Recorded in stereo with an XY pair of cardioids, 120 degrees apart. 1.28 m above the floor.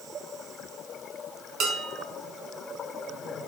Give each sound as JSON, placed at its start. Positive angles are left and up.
{"t": 1.6, "sound": "dishes clattering", "azimuth_deg": -60, "distance_m": 4.5}